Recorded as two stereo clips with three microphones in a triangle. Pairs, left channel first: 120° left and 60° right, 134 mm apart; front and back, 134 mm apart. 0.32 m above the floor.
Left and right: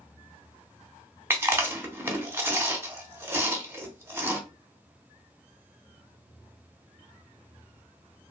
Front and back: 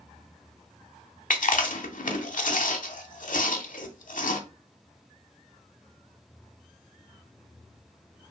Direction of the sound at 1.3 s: 10° left.